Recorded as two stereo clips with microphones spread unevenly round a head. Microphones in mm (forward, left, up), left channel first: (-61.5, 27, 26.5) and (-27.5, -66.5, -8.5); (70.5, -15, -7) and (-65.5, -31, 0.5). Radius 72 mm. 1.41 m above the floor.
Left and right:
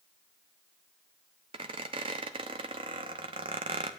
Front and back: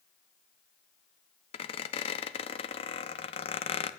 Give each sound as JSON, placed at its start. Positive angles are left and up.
{"t": 1.5, "sound": "a squeak", "azimuth_deg": -15, "distance_m": 0.9}